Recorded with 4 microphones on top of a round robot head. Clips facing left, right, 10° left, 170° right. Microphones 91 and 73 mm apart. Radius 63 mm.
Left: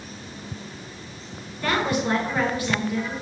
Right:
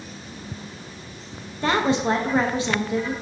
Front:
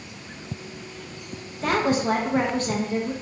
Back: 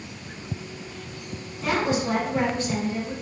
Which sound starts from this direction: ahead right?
A woman speaking, at 1.6 s.